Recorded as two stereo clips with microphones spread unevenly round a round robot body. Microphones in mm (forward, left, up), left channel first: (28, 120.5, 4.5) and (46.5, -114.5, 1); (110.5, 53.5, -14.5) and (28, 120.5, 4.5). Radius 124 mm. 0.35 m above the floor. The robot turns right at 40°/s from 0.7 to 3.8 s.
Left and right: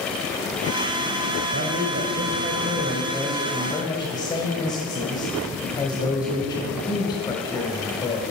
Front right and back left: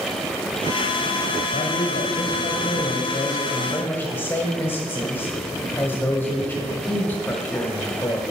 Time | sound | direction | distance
1.5 | a man speaking | 65° right | 1.5 m